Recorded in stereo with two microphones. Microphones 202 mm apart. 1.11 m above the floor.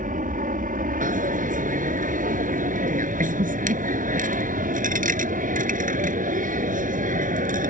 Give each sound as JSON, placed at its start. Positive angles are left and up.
{"t": 0.0, "sound": "an aircraft", "side_deg": -45}
{"t": 1.0, "sound": "a dropped coin", "side_deg": -45}